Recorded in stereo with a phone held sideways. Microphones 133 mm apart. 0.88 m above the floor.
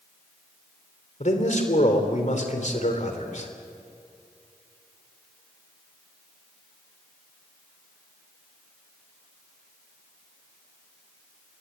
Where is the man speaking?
60° left (ahead or behind), 3 m.